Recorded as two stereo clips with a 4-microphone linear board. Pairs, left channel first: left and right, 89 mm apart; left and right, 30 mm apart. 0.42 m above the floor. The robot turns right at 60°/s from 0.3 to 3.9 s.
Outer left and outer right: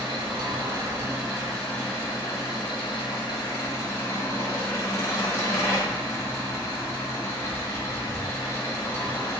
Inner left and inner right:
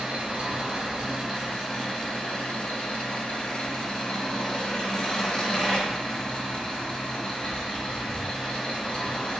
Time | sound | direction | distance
0.0 | an engine running | 70° right | 1.3 m